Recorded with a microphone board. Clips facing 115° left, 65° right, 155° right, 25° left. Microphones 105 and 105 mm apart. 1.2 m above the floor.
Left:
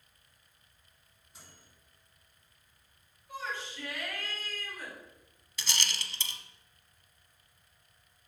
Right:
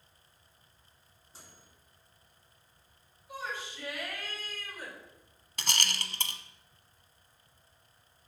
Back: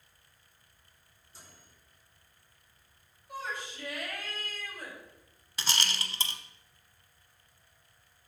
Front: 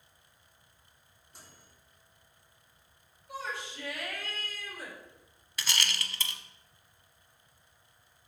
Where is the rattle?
95° right, 0.8 m.